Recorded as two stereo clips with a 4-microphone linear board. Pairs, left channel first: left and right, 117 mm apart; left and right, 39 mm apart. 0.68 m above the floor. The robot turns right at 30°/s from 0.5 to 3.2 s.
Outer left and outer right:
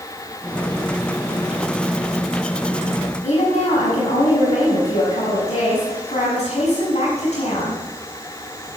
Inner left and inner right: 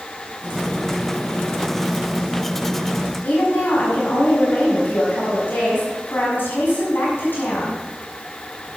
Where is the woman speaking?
70° left (ahead or behind), 5.5 m.